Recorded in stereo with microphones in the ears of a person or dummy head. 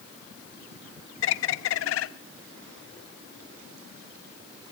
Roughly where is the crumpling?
No crumpling in this recording.